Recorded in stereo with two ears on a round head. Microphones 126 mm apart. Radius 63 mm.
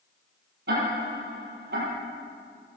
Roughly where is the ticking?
Right.